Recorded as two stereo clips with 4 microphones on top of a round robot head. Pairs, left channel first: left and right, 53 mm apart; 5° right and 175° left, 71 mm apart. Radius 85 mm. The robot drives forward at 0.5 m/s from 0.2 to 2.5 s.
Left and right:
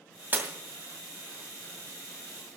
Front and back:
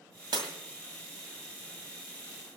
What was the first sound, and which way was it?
Breaking glass, 145° right.